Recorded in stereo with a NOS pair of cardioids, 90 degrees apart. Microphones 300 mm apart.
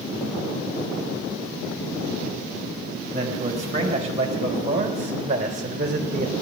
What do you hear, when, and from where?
3.1 s a man speaking: 20° right, 4.5 m; by 6.3 s 25° right, 2.5 m